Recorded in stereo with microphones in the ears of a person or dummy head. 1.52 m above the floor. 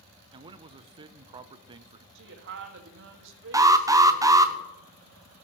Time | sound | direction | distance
0.3 | a man speaking | 20° right (ahead or behind) | 0.6 m
2.1 | a woman speaking | 60° right (ahead or behind) | 2 m
3.5 | an alarm | 10° right (ahead or behind) | 0.6 m